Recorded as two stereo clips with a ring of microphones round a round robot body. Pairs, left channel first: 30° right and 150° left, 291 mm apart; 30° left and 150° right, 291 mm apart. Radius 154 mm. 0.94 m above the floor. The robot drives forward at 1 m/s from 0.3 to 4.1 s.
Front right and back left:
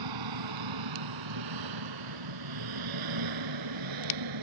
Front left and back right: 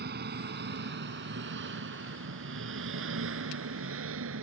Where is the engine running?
150° left; by 4.4 s 160° left.